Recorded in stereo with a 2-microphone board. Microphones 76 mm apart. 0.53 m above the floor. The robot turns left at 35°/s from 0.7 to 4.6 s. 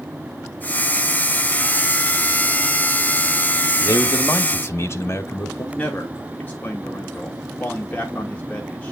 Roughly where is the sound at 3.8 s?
Left.